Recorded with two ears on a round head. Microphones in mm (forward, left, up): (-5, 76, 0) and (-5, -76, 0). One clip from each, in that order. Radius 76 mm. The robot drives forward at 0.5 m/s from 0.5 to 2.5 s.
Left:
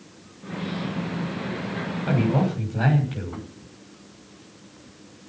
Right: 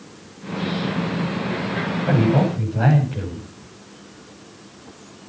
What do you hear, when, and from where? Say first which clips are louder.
2.1 s a man speaking: right 4 dB; 60° left (ahead or behind), 6 m